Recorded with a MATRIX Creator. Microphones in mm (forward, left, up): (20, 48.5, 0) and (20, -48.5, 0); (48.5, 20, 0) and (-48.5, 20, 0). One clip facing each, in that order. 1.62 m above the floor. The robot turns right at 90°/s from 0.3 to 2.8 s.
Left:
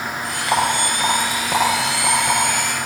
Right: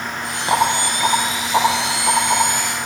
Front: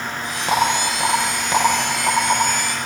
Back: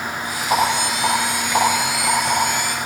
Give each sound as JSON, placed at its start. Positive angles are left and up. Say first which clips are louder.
{"t": 0.5, "sound": "a rattle", "louder": "right 2 dB, even", "azimuth_deg": -30, "distance_m": 8.5}